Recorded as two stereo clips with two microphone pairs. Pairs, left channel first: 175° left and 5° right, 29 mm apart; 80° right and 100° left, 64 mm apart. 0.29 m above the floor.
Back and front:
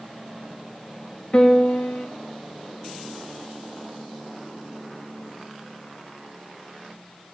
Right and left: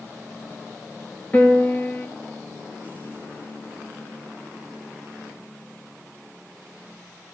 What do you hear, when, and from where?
1.3 s a piano: 150° right, 1.6 m